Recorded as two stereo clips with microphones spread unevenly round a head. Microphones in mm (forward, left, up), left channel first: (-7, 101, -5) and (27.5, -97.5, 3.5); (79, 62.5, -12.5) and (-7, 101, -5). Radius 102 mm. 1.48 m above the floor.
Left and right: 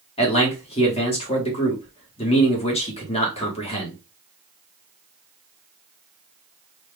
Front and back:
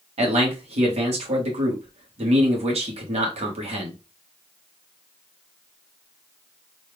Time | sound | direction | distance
0.2 | a man speaking | 165° left | 1.4 m